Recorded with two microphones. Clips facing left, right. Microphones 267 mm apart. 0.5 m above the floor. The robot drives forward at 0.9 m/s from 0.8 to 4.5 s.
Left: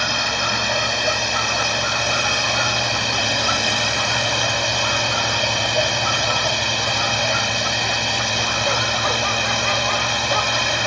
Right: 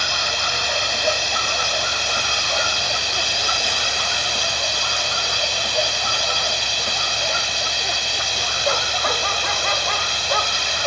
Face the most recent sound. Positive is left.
turn(degrees=65)  # may be behind; listen again after turning